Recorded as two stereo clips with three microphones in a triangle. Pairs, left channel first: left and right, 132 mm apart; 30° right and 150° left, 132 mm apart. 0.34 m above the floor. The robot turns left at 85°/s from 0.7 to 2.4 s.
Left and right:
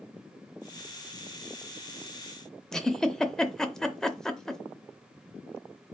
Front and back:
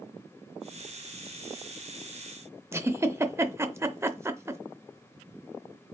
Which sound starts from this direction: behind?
A giggle, at 2.7 s.